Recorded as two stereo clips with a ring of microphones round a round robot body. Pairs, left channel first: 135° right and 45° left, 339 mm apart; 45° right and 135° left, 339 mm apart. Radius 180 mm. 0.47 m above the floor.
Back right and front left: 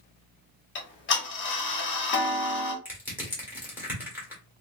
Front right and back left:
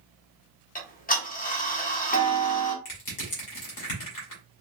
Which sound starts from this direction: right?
Ticking, at 0.8 s.